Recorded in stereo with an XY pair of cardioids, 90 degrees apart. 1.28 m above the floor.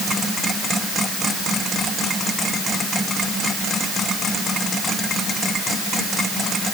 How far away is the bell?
No bell in this recording.